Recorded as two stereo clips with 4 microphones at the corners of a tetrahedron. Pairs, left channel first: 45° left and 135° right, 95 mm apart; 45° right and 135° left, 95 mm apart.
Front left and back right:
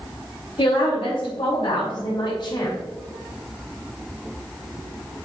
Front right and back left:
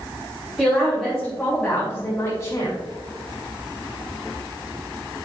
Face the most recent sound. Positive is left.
turn(degrees=5)